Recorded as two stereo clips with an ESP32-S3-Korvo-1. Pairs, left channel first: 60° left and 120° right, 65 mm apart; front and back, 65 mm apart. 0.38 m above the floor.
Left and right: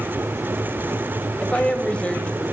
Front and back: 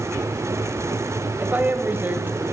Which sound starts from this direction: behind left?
A woman speaking, at 1.4 s.